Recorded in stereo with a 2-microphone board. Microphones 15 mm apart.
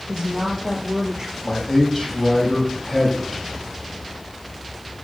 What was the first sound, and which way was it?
A woman speaking, 55° right (ahead or behind).